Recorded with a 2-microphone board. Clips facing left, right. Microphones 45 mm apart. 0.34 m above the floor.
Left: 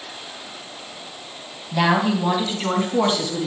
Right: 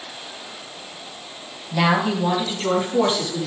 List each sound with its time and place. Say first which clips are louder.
1.7 s a woman speaking: left 1 dB; 10° left (ahead or behind), 2.5 m; by 3.5 s 25° left (ahead or behind), 3.5 m